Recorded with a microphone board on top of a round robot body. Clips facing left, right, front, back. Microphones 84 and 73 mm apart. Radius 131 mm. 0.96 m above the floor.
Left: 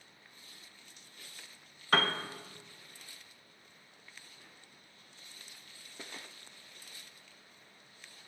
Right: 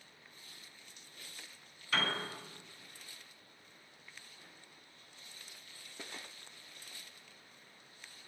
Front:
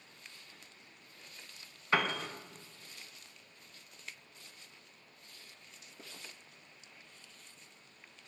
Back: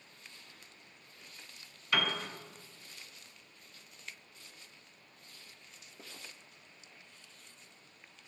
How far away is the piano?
About 0.8 m.